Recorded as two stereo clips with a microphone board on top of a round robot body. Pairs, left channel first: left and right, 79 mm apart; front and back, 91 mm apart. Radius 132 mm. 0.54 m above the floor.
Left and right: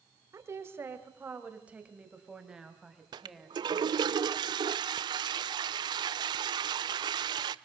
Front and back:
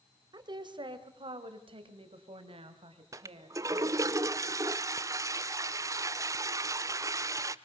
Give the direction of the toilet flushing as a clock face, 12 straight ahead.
4 o'clock.